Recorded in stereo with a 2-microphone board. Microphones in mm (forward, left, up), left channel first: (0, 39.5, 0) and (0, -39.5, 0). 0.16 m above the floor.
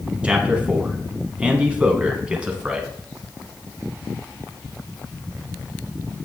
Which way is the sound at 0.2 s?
15° right (ahead or behind).